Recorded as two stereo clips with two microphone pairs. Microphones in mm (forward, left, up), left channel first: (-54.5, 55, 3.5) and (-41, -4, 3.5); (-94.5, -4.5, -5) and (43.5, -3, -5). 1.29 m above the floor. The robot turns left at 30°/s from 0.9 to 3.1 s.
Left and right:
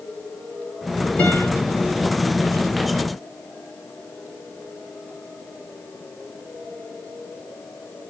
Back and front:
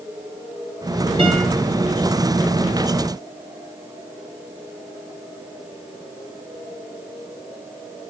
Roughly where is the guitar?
Ahead left.